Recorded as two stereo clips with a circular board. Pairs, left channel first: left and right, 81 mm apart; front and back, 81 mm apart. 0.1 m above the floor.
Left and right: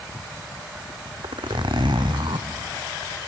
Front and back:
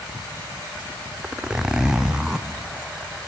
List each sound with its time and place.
1.2 s a zipper: 95° right, 1.5 m